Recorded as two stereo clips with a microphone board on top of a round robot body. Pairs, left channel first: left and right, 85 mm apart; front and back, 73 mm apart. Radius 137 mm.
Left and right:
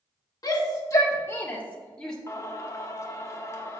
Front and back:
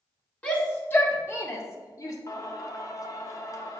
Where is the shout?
65° left, 1.6 m; by 2.2 s 10° left, 1.5 m.